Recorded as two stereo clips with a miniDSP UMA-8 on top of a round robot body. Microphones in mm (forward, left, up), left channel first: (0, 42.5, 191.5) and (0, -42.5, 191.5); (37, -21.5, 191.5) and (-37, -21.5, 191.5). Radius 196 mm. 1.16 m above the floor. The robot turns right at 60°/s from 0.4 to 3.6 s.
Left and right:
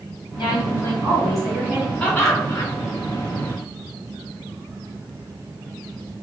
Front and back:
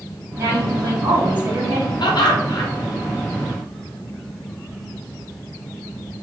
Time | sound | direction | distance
0.4 | a woman speaking | 125° left | 1.4 m
2.0 | laughter | 10° left | 0.7 m